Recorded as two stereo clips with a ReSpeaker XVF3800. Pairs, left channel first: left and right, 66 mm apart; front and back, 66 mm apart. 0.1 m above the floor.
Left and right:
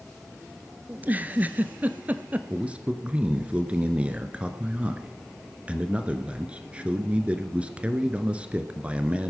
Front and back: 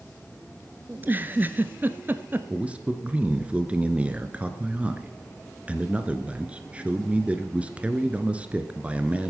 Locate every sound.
0.9 s a giggle: 140° right, 0.8 m
2.5 s a man speaking: 135° right, 1.5 m